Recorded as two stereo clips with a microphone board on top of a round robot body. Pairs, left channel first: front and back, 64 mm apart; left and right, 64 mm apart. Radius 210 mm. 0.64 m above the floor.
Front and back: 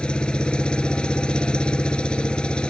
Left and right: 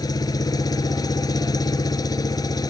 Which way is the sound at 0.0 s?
75° left.